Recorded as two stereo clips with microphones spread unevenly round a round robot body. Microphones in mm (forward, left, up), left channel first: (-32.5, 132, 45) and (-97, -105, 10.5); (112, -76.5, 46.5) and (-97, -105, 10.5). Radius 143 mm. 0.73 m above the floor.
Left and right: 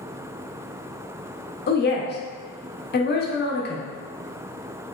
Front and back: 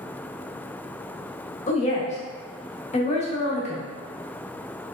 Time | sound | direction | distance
1.7 | a woman speaking | 55° left | 0.7 m